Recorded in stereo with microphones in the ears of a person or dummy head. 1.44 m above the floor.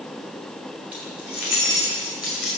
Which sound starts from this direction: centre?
Keys jangling, at 0.9 s.